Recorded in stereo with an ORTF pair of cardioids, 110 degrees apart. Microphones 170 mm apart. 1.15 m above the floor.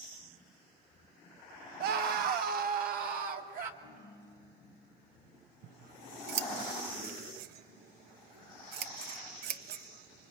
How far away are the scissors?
About 0.8 m.